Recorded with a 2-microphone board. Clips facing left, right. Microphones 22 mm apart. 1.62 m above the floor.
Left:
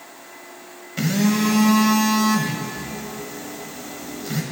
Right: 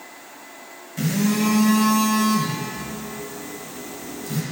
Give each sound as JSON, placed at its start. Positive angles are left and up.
{"t": 1.0, "sound": "a phone buzzing", "side_deg": 35, "distance_m": 1.0}